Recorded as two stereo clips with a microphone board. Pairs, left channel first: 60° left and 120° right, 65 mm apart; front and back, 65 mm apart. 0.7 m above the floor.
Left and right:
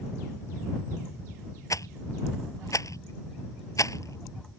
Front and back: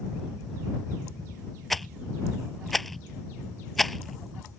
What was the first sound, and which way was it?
A rattle, 85° left.